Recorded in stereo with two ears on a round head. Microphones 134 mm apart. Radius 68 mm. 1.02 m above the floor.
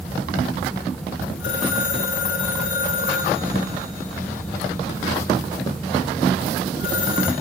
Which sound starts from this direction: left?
A phone ringing, at 1.4 s.